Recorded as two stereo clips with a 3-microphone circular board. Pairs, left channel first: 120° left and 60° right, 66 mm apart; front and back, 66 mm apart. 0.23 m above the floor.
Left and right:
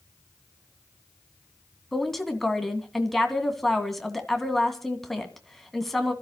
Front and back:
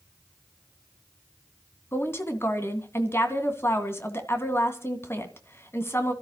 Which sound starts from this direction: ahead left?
A woman speaking, at 1.9 s.